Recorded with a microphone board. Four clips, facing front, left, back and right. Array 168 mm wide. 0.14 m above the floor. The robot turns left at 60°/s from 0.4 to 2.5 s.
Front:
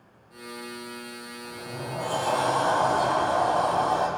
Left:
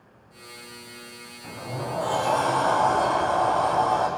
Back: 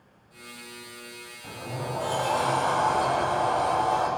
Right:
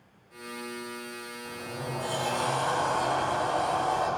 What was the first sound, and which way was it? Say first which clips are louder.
A sliding door: left 6 dB, back 3 dB; 115° left.